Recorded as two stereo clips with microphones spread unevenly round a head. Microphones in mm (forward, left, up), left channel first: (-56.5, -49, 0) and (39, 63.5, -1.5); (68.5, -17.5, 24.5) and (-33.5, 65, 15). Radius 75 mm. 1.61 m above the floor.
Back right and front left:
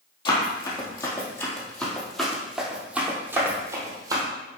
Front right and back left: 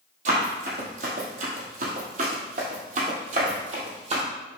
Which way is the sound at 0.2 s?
175° left.